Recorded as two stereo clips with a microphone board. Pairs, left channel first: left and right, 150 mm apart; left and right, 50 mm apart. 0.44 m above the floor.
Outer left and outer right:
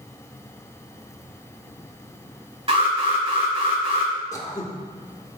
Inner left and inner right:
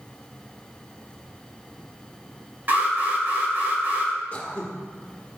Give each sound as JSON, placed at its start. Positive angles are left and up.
{"t": 2.7, "sound": "an alarm", "side_deg": -40, "distance_m": 3.0}
{"t": 4.3, "sound": "throat clearing", "side_deg": 25, "distance_m": 1.2}